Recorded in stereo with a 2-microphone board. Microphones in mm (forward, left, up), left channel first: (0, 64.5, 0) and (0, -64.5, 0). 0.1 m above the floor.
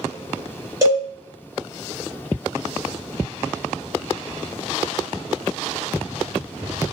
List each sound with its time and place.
0.8 s a cowbell: 25° right (ahead or behind), 1.4 m